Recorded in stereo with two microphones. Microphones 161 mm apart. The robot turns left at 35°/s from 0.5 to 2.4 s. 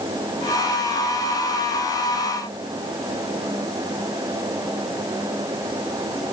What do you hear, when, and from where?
Only background noise.